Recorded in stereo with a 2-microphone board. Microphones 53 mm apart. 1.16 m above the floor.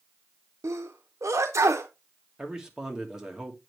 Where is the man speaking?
15° right (ahead or behind), 1.6 m.